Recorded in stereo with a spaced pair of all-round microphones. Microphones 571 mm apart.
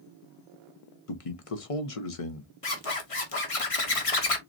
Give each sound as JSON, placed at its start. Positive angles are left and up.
{"t": 1.1, "sound": "a man speaking", "side_deg": 70, "distance_m": 0.9}
{"t": 2.6, "sound": "a zipper", "side_deg": 70, "distance_m": 1.1}